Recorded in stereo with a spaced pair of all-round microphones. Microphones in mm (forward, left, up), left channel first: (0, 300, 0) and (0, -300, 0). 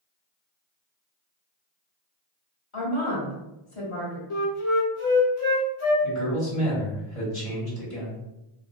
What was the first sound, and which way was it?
A woman speaking, 55° left (ahead or behind).